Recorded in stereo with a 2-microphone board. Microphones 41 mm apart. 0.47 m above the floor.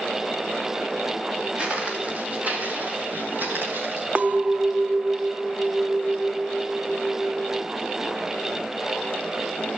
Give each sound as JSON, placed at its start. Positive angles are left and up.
{"t": 1.6, "sound": "footsteps", "side_deg": -25, "distance_m": 4.0}
{"t": 4.2, "sound": "a clink", "side_deg": -40, "distance_m": 0.5}